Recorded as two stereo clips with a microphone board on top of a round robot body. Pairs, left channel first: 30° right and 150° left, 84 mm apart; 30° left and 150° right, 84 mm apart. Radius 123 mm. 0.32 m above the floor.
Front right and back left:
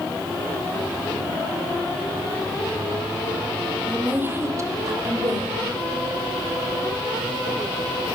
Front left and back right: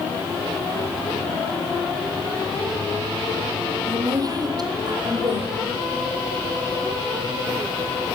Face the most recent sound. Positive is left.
turn(degrees=-175)